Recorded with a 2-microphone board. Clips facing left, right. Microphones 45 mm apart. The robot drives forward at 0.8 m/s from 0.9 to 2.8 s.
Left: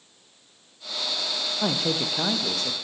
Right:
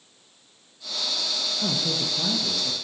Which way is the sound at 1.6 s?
75° left (ahead or behind).